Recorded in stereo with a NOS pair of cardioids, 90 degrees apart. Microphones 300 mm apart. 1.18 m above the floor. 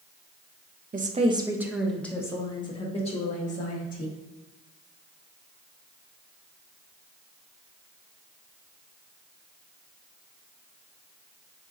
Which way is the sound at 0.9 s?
30° right.